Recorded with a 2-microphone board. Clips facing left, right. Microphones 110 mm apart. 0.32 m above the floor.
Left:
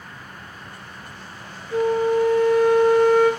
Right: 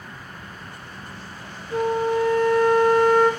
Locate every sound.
1.7 s a flute: 30° right (ahead or behind), 3.5 m